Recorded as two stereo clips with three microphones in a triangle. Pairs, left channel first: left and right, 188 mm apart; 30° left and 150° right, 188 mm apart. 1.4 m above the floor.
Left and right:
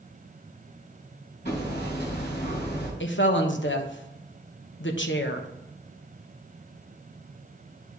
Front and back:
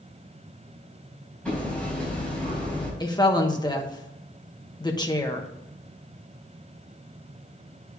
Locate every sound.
1.4 s hammering: 115° left, 4.5 m
3.0 s a woman speaking: 95° left, 1.1 m